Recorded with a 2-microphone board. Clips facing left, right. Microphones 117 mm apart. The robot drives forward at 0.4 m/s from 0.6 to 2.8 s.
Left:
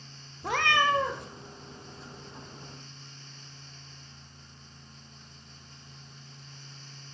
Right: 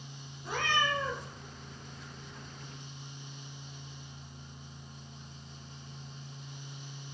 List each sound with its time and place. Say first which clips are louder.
0.4 s a cat meowing: left 6 dB; 80° left, 0.8 m; by 1.3 s 60° left (ahead or behind), 0.8 m